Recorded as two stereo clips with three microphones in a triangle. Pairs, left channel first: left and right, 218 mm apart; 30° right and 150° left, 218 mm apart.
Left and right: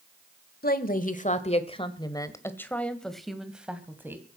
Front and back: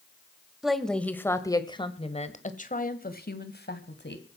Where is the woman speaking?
60° left, 1.6 m; by 4.2 s 10° right, 2.5 m.